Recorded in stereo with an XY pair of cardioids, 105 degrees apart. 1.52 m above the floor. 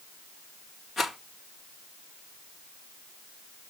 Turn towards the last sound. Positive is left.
turn(degrees=50)